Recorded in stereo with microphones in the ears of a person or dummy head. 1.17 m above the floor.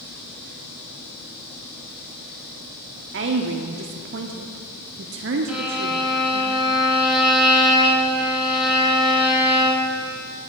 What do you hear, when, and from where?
3.1 s a woman speaking: 55° right (ahead or behind), 0.7 m
5.5 s a violin: centre (ahead or behind), 2.5 m